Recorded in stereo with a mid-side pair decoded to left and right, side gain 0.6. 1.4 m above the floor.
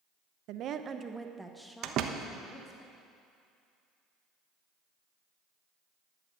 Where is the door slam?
55° right, 1.0 m.